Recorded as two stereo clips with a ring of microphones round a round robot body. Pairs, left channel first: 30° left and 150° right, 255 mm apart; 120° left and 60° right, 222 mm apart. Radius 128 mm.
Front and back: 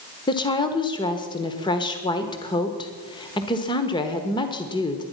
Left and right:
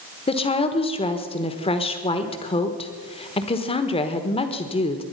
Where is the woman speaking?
85° left, 1.1 m.